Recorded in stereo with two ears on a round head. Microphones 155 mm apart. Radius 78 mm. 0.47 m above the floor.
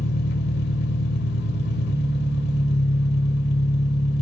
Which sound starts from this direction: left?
An engine running, at 0.0 s.